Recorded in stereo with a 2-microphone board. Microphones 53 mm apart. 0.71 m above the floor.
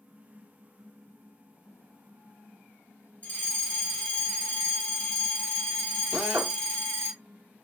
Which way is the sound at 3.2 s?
20° left (ahead or behind).